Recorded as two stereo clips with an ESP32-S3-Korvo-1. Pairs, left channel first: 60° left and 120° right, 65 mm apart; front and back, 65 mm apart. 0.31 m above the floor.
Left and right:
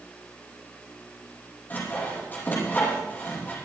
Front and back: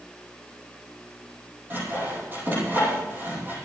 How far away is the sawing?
About 7.5 m.